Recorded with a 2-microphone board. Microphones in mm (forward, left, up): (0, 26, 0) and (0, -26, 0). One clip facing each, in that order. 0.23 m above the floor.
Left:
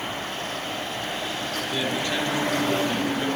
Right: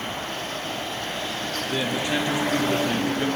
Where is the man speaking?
20° right (ahead or behind), 4 m.